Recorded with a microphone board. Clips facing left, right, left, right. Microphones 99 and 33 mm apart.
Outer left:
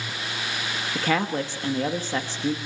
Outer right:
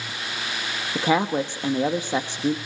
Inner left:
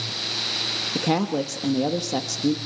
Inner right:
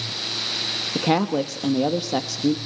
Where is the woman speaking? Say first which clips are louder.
Outer right 4 dB, inner right 3 dB; 20° right (ahead or behind), 1.1 m.